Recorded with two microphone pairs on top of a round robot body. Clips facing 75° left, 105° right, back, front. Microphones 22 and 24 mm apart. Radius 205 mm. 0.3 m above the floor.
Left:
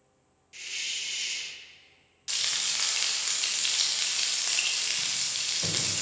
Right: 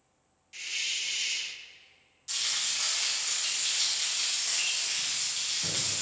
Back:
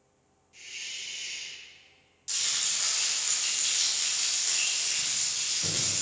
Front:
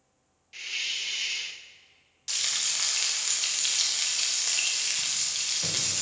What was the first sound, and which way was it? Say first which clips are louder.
A hiss: right 1 dB, front 8 dB; 20° right.